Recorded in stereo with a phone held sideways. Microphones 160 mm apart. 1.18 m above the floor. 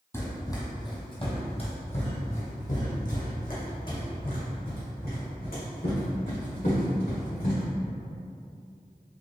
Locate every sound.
0.1 s running footsteps: 15° left (ahead or behind), 1.6 m; by 7.6 s 70° left (ahead or behind), 4 m